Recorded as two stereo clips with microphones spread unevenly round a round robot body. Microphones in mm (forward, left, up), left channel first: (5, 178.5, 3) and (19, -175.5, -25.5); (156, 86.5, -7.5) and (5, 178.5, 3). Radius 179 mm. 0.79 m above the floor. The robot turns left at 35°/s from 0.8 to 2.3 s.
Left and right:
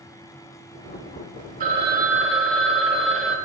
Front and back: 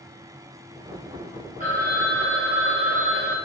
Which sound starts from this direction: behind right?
A phone ringing, at 1.6 s.